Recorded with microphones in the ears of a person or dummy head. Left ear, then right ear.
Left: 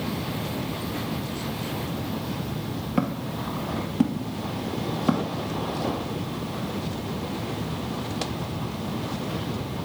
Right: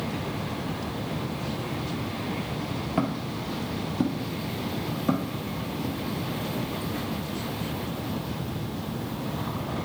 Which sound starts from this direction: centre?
Footsteps, at 3.0 s.